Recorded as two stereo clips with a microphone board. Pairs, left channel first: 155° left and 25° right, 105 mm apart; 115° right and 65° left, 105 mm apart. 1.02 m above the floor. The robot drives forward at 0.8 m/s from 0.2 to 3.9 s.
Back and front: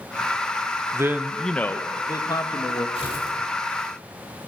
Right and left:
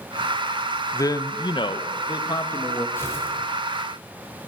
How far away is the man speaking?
About 0.7 m.